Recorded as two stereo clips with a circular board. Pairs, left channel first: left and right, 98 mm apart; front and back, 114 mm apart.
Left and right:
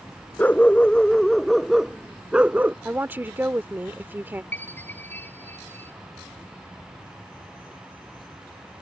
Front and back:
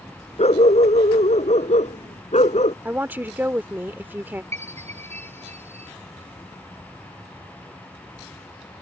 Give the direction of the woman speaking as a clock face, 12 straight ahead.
4 o'clock.